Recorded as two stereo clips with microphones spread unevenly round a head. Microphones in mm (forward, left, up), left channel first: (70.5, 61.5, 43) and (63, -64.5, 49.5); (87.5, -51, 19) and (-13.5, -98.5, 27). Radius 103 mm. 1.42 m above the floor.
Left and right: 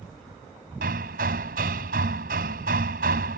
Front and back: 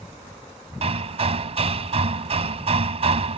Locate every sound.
0.8 s hammering: 135° right